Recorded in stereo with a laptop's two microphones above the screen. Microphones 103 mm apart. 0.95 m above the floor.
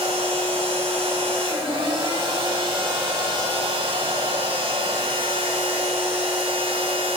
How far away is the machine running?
About 3.5 m.